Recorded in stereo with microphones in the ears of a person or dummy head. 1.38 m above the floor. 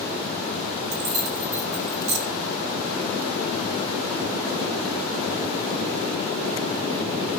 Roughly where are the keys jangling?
Right.